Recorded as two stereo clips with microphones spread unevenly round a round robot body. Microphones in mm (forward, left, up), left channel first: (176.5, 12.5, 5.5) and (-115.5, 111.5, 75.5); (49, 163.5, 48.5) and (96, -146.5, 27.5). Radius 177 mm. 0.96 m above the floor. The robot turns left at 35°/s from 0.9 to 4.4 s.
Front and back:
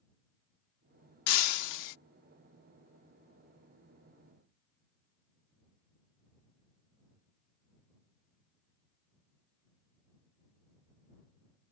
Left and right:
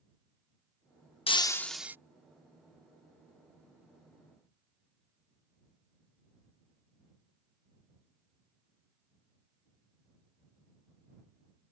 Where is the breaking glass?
30° left; by 2.0 s 5° left.